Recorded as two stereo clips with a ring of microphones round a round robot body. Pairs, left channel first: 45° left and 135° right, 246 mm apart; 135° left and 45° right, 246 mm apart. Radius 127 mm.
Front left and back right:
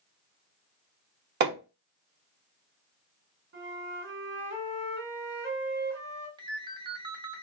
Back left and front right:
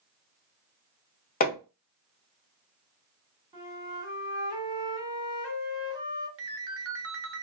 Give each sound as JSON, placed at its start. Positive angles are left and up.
{"t": 1.4, "sound": "hammering", "azimuth_deg": -175, "distance_m": 0.8}
{"t": 3.5, "sound": "a flute", "azimuth_deg": -110, "distance_m": 1.6}
{"t": 6.4, "sound": "a ringtone", "azimuth_deg": -65, "distance_m": 0.8}